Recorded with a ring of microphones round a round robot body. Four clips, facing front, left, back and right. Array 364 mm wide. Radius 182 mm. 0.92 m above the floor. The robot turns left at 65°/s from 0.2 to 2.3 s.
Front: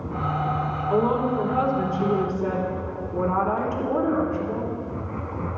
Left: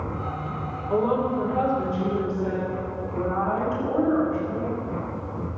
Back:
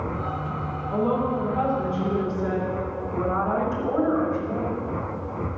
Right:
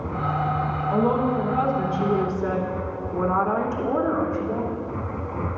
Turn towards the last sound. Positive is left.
turn(degrees=-45)